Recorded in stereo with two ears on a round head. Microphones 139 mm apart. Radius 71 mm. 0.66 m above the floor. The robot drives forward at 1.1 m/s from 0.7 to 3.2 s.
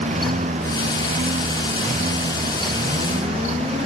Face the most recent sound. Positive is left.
turn(degrees=-45)  # may be behind; listen again after turning